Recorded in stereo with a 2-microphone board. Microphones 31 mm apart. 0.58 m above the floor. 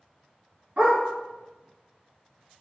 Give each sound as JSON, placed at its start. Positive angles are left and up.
{"t": 0.8, "sound": "a dog barking", "side_deg": -50, "distance_m": 1.5}